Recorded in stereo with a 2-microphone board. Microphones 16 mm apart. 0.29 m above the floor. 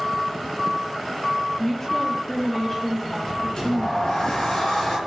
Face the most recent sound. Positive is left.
turn(degrees=55)  # may be behind; listen again after turning